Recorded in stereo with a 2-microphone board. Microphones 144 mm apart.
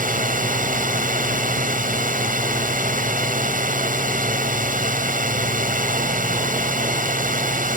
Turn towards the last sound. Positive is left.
turn(degrees=-70)  # may be behind; listen again after turning